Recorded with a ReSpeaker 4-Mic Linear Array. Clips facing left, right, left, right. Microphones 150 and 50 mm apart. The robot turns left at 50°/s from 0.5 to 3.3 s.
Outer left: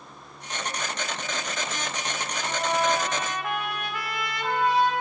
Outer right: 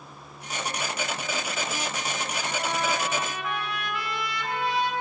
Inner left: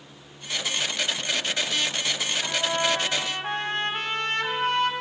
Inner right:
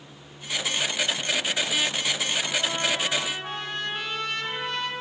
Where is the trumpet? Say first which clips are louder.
Outer left 5 dB, inner left 5 dB; 120° left, 1.6 m; by 4.9 s 75° left, 1.6 m.